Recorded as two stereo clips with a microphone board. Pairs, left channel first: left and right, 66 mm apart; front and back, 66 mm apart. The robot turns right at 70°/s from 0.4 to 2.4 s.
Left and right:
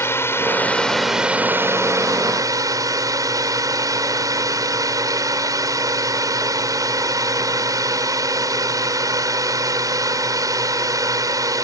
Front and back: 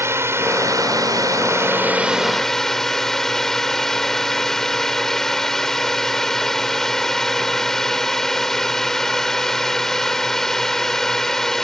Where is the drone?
135° left; by 11.6 s 85° right.